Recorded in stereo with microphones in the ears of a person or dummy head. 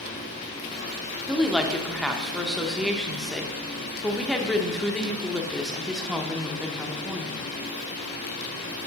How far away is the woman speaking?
About 0.9 m.